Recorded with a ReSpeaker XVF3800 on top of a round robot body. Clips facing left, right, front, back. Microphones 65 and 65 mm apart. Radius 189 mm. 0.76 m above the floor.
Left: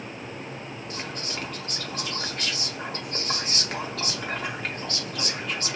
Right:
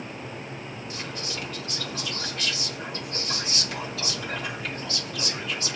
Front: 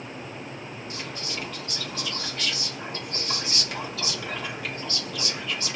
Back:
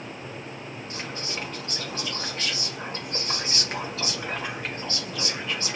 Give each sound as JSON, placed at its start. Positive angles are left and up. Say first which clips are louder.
{"t": 0.9, "sound": "whispering", "louder": "left 1 dB, back 2 dB", "azimuth_deg": 125, "distance_m": 2.0}